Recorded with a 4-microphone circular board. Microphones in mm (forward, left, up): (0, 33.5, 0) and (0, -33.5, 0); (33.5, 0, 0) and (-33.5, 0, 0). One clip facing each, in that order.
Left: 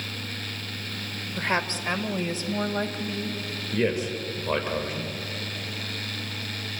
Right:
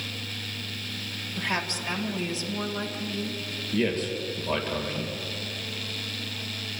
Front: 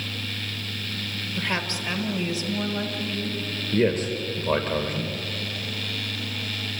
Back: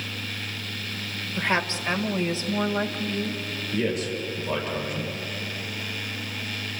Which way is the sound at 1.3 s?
125° left.